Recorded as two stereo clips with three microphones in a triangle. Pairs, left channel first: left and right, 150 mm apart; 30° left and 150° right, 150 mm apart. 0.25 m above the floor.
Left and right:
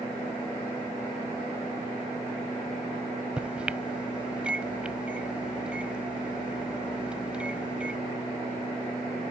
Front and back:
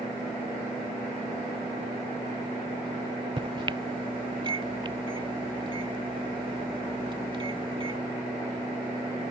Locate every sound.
3.4 s a microwave: 170° right